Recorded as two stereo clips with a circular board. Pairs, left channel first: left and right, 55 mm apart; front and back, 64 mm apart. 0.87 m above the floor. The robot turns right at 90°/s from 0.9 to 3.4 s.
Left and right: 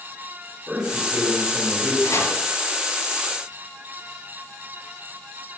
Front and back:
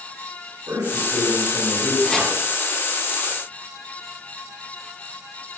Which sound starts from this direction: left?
Chopping, at 2.0 s.